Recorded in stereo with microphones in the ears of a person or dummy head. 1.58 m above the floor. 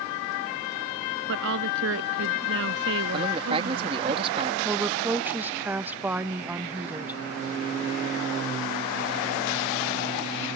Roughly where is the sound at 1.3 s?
Right.